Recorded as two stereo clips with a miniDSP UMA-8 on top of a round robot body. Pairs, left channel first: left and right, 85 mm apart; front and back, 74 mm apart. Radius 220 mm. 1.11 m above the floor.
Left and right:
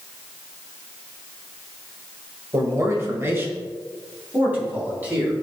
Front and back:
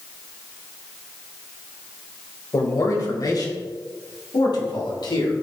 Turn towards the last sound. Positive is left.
turn(degrees=-20)